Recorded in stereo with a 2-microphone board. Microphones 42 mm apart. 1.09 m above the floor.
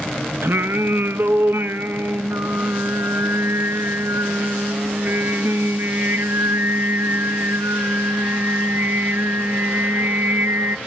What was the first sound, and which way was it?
Singing, 70° right (ahead or behind).